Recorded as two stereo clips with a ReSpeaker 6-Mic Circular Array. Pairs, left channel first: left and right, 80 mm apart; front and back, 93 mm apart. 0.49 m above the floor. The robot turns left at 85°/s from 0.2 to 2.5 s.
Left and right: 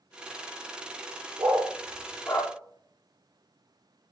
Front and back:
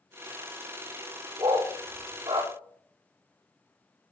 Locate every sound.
1.4 s a dog barking: 140° right, 5 m; by 2.5 s 125° left, 5 m